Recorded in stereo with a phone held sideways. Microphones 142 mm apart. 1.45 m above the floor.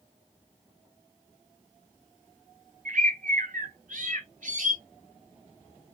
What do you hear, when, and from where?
2.9 s a bird: 65° right (ahead or behind), 1.1 m